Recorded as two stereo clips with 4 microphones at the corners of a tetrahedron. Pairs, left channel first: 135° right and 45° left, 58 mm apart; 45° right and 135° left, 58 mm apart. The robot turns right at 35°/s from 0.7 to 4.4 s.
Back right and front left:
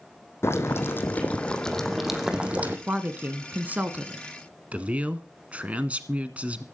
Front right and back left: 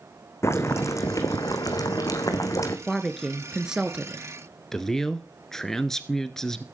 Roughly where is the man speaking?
Ahead left.